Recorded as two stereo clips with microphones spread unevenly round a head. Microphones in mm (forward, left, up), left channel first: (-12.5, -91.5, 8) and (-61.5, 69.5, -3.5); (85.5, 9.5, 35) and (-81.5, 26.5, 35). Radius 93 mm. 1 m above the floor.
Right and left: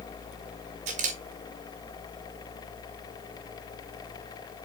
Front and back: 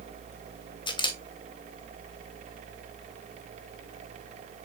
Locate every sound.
0.9 s a camera shutter: 55° left, 1.5 m